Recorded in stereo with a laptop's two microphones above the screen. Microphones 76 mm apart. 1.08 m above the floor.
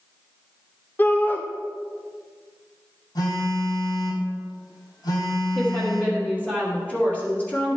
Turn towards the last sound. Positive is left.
turn(degrees=20)  # may be behind; listen again after turning